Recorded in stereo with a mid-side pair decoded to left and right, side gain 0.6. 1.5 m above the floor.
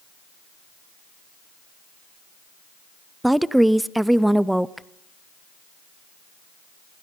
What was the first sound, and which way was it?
A woman speaking, 5° right.